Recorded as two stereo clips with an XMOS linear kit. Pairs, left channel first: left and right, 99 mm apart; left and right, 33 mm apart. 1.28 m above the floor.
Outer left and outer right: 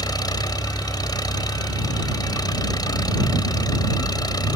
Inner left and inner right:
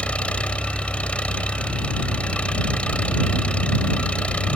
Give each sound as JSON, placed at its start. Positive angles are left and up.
{"t": 0.0, "sound": "an engine running", "side_deg": 40}